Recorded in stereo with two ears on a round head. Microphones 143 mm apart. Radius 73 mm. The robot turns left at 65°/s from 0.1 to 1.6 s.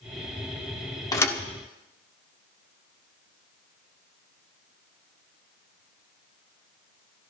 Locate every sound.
1.1 s a thud: 20° left (ahead or behind), 1.3 m; by 1.4 s 5° left (ahead or behind), 1.3 m